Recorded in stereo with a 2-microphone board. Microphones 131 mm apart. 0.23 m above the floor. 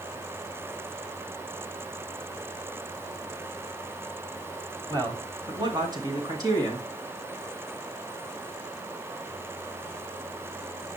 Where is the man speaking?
30° right (ahead or behind), 1.4 m; by 6.9 s 25° right (ahead or behind), 2.5 m.